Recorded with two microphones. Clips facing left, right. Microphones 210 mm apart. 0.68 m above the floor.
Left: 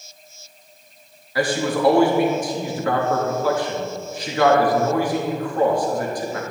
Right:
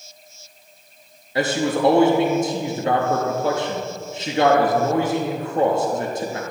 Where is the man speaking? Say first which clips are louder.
Even; 25° right (ahead or behind), 0.9 m.